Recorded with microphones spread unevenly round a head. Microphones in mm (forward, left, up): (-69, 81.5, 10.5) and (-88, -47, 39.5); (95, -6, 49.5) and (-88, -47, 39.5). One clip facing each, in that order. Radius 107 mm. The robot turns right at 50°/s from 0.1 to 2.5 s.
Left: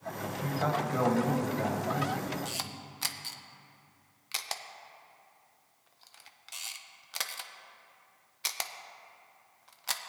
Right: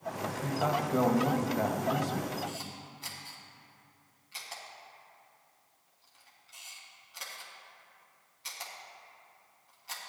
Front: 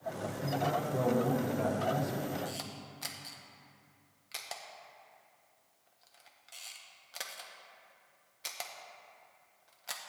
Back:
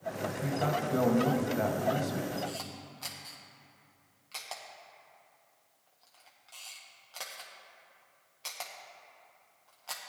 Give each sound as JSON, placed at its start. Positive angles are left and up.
{"t": 0.4, "sound": "a man speaking", "azimuth_deg": 165, "distance_m": 1.2}
{"t": 2.5, "sound": "a camera shutter", "azimuth_deg": 85, "distance_m": 0.6}